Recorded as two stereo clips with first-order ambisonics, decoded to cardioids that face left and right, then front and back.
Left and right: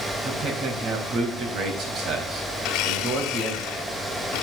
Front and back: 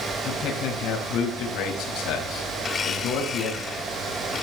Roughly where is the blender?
Ahead left.